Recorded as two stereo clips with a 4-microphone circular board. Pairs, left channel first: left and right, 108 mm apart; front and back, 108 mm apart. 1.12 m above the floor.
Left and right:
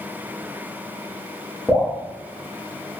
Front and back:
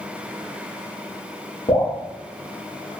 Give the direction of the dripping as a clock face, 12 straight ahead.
12 o'clock.